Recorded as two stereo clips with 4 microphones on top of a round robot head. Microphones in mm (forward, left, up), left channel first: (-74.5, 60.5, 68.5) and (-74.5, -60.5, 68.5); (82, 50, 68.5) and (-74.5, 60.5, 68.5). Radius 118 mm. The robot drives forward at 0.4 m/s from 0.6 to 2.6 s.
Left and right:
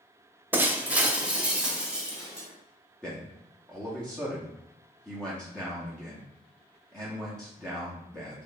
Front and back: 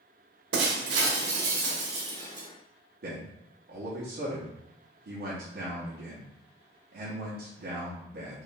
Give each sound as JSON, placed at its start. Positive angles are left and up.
{"t": 0.5, "sound": "breaking glass", "azimuth_deg": -165, "distance_m": 0.6}
{"t": 3.0, "sound": "a man speaking", "azimuth_deg": 170, "distance_m": 1.1}